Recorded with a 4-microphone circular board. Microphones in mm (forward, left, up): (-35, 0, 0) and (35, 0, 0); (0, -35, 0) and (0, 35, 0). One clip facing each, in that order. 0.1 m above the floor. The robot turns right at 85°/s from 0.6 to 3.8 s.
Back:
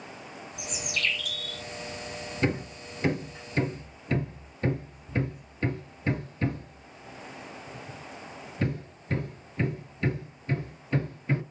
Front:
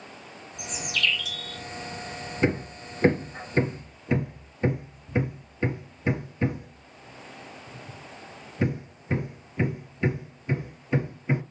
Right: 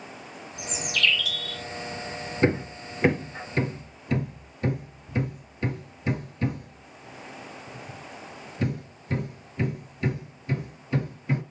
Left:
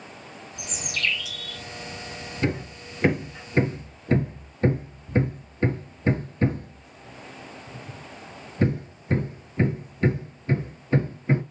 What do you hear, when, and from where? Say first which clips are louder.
0.6 s a bird: front 3 dB, right 3 dB; 100° left, 1.4 m; by 1.6 s 170° right, 1.4 m
2.4 s hammering: front 3 dB, right 4 dB; 55° right, 1.7 m; by 11.4 s 60° left, 1.7 m